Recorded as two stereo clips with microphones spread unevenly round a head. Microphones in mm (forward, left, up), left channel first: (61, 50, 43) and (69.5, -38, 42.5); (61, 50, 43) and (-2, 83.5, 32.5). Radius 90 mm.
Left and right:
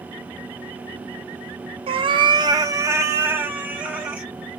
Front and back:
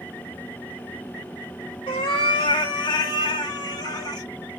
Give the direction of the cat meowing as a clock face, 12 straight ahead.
2 o'clock.